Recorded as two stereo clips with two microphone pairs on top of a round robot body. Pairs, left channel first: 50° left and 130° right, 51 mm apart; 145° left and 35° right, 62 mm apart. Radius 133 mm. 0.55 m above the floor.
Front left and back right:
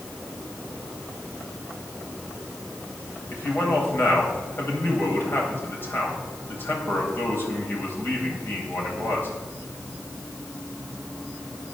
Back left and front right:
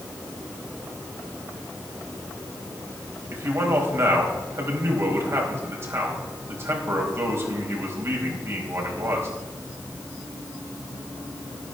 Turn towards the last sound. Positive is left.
turn(degrees=5)